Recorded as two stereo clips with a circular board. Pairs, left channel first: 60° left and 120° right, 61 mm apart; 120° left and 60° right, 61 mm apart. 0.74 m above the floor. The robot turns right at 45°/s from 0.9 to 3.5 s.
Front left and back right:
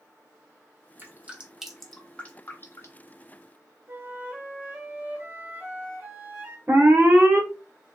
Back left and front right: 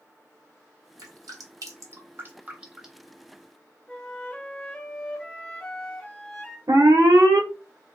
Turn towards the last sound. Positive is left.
turn(degrees=-65)